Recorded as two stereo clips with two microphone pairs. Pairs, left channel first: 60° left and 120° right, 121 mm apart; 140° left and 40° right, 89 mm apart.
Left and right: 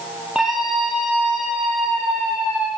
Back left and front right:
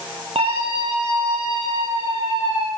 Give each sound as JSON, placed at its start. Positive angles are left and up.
{"t": 0.3, "sound": "a scream", "azimuth_deg": -30, "distance_m": 9.5}